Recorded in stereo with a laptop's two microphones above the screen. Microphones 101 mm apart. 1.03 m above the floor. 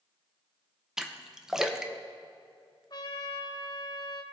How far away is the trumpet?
About 0.9 m.